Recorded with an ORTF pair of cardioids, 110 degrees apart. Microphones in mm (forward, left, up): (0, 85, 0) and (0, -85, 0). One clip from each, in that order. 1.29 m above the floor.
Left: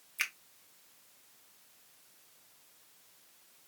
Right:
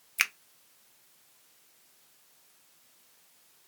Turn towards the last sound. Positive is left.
turn(degrees=-45)